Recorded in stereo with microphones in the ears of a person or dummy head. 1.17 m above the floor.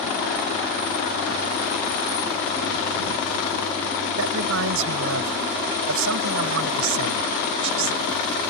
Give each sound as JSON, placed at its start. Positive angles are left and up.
{"t": 4.2, "sound": "a man speaking", "side_deg": -75}